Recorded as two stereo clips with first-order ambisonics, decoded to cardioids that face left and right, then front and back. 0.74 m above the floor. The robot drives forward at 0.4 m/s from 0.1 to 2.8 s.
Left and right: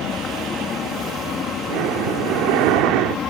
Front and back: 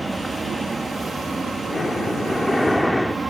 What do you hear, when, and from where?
0.0 s an aircraft: 100° left; by 3.3 s 110° left
1.7 s breathing: 70° right; by 3.2 s 85° right